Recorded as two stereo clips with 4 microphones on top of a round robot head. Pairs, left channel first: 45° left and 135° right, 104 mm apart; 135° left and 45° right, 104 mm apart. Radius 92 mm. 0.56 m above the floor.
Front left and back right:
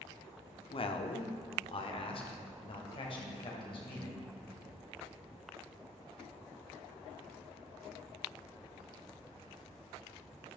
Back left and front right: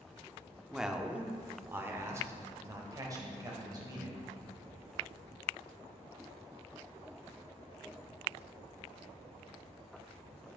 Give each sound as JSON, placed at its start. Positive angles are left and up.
{"t": 0.7, "sound": "a man speaking", "azimuth_deg": 40, "distance_m": 1.1}